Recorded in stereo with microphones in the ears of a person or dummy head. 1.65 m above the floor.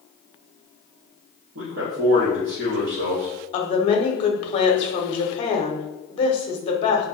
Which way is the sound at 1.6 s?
55° right (ahead or behind).